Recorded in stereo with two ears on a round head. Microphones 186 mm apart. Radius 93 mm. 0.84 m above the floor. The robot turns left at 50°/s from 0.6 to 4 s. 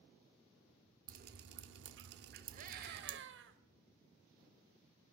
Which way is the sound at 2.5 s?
45° right.